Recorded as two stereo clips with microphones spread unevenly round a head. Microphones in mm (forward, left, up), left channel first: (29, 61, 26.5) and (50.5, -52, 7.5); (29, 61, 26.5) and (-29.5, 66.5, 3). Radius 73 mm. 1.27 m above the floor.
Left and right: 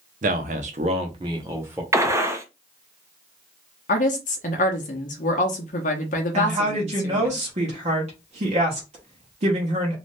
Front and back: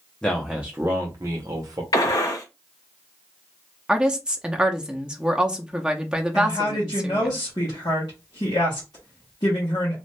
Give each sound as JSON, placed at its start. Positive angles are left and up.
{"t": 0.2, "sound": "a man speaking", "azimuth_deg": -90, "distance_m": 0.7}
{"t": 1.9, "sound": "a gunshot", "azimuth_deg": -10, "distance_m": 0.8}
{"t": 3.9, "sound": "a woman speaking", "azimuth_deg": 95, "distance_m": 0.6}
{"t": 6.3, "sound": "a woman speaking", "azimuth_deg": -50, "distance_m": 1.0}